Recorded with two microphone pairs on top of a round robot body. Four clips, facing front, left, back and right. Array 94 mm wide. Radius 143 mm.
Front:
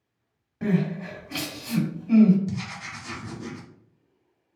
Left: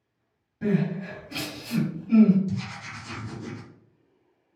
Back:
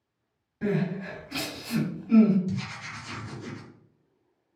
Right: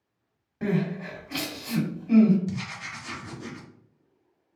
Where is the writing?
50° right, 1.0 m.